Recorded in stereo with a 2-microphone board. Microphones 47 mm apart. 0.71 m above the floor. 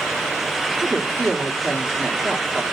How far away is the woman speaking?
About 1.8 m.